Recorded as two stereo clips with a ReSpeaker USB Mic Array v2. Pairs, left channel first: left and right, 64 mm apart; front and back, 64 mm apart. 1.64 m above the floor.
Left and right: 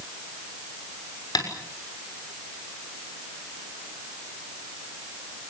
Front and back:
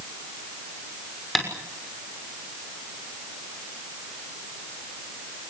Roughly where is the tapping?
Left.